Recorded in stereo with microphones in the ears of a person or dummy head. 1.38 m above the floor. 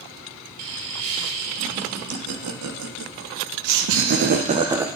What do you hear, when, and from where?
0.6 s laughter: 75° right (ahead or behind), 4.5 m; by 4.9 s 10° right (ahead or behind), 1.0 m